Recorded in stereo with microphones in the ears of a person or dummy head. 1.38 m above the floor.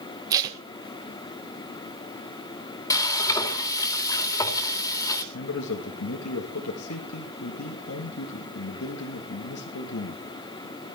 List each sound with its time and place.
0.3 s tape being pulled: 20° right (ahead or behind), 1.4 m
2.9 s frying: 20° left (ahead or behind), 2 m
5.3 s a man speaking: 85° left, 1.7 m